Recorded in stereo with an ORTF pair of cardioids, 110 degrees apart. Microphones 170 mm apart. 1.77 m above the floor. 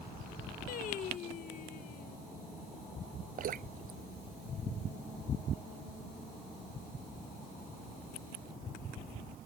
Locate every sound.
0.7 s singing: 55° left
3.4 s dripping: 55° right